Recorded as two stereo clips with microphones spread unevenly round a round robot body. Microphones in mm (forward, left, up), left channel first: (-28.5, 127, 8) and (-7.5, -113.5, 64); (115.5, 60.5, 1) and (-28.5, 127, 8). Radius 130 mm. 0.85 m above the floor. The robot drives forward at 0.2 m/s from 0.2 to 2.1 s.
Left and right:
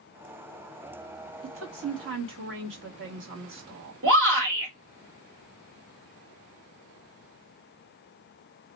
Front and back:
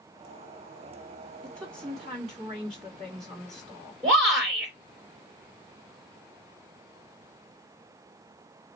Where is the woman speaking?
125° right, 1.2 m; by 3.9 s 130° right, 1.3 m.